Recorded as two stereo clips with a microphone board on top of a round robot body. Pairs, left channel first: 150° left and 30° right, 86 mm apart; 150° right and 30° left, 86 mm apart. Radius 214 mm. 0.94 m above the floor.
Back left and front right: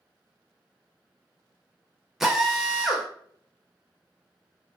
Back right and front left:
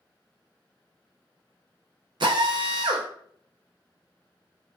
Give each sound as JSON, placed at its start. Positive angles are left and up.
{"t": 2.2, "sound": "a drill", "azimuth_deg": 60, "distance_m": 0.6}